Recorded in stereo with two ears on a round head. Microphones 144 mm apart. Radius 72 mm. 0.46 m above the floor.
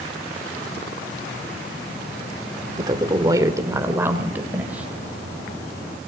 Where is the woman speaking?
25° right (ahead or behind), 1.4 m; by 4.9 s 10° right (ahead or behind), 2.5 m.